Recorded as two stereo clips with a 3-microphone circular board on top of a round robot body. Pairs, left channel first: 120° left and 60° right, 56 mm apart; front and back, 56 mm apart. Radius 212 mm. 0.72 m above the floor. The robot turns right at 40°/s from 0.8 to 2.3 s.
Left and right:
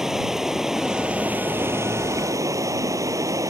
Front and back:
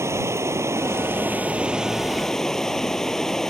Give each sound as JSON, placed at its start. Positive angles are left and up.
{"t": 0.0, "sound": "running water", "azimuth_deg": -140}